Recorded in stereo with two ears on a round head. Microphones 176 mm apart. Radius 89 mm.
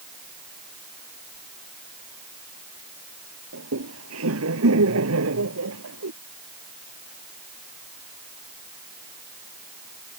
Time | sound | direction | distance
3.5 | laughter | 85° right | ?